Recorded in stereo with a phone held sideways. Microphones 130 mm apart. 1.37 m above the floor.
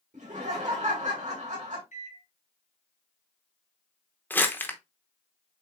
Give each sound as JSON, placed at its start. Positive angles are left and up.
{"t": 0.1, "sound": "laughter", "side_deg": -65, "distance_m": 2.0}
{"t": 1.9, "sound": "a microwave", "side_deg": 75, "distance_m": 2.0}
{"t": 4.3, "sound": "crumpling", "side_deg": 15, "distance_m": 0.7}